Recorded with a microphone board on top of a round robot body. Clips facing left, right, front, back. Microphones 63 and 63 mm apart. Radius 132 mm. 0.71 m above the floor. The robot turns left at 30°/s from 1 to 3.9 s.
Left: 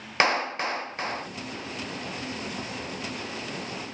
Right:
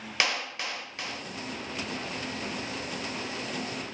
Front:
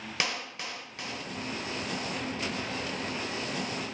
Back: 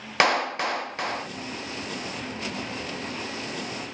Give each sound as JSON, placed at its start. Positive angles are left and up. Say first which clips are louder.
{"t": 0.2, "sound": "a clap", "louder": "left 7 dB, back 13 dB", "azimuth_deg": 145}